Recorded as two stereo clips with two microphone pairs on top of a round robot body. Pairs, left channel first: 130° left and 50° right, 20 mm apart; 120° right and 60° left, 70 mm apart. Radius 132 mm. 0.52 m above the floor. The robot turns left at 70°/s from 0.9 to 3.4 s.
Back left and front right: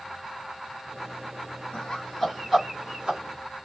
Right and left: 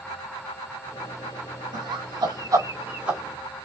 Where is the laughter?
80° left, 3 m; by 3.2 s 25° right, 3 m.